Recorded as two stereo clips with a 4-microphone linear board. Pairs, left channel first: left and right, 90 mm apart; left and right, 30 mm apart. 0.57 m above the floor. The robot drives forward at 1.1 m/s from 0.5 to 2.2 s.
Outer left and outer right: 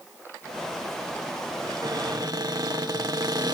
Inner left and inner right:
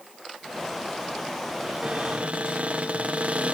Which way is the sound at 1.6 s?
50° right (ahead or behind).